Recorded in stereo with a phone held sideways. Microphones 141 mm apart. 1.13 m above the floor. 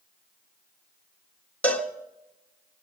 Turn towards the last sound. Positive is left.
turn(degrees=10)  # may be behind; listen again after turning